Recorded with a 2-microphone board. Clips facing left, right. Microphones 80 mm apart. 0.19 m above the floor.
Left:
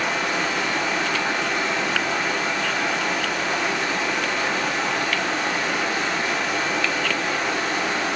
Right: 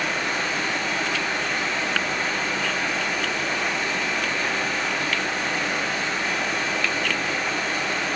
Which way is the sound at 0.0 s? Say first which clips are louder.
Left 2 dB; 80° left.